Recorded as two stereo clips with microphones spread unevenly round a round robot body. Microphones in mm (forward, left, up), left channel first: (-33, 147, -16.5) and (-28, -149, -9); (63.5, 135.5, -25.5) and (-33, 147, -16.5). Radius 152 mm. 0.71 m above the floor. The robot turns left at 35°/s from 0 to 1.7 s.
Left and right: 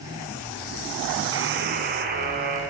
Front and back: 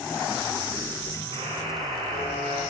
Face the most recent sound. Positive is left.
turn(degrees=-150)